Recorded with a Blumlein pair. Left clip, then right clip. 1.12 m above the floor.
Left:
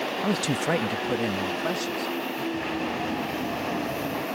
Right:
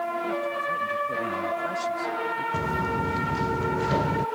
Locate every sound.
0.2 s a man speaking: 55° left; by 2.4 s 10° left
2.5 s footsteps: 60° right